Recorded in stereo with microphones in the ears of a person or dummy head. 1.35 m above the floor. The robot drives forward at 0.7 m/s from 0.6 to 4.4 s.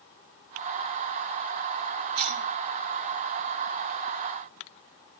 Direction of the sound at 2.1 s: 85° right.